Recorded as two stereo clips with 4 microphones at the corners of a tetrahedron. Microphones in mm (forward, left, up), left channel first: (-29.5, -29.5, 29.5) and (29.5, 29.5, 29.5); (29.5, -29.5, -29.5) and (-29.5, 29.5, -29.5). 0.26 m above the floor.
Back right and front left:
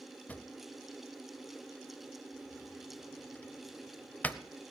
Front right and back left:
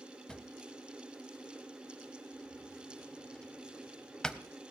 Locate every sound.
0.3 s a drawer: 105° right, 0.7 m